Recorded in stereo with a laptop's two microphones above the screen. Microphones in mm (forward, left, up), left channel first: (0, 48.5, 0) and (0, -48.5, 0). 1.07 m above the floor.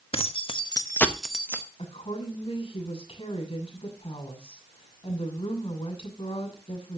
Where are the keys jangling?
80° left, 1.3 m; by 1.7 s 25° right (ahead or behind), 1.3 m.